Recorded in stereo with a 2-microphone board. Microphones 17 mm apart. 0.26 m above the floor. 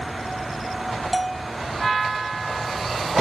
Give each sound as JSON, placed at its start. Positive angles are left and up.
{"t": 1.1, "sound": "a bell", "side_deg": 0}